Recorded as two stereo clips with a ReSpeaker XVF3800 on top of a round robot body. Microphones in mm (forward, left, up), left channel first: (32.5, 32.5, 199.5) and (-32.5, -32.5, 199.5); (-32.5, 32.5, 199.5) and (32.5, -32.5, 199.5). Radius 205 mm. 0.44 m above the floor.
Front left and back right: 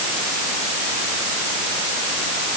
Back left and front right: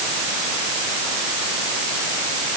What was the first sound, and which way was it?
Only background noise.